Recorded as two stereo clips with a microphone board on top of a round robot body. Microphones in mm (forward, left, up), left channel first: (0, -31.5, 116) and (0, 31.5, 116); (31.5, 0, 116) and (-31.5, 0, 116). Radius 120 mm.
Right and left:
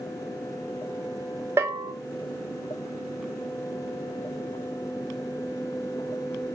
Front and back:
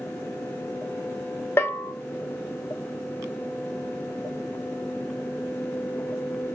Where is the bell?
50° left, 0.8 m.